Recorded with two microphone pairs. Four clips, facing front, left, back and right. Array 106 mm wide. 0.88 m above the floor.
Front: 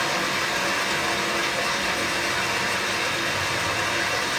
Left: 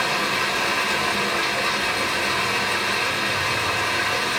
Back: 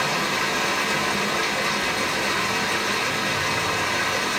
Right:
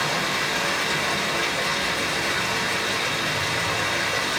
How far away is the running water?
About 1.4 m.